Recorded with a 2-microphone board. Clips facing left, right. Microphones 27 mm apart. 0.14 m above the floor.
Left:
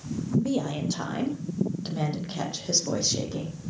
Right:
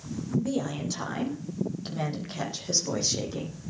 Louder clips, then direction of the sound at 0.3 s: Left 2 dB; 15° left (ahead or behind).